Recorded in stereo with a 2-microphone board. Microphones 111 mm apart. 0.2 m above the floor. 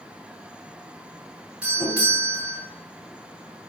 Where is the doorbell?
10° right (ahead or behind), 1.5 m.